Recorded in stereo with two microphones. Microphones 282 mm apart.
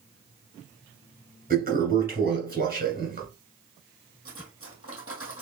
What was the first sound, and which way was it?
A toilet flushing, 30° right (ahead or behind).